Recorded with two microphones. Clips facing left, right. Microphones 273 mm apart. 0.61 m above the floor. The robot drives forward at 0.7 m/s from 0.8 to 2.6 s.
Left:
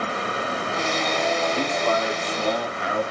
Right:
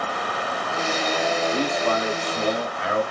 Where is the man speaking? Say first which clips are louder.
Right 1 dB; 45° right (ahead or behind), 1.0 m; by 3.0 s 30° right (ahead or behind), 1.3 m.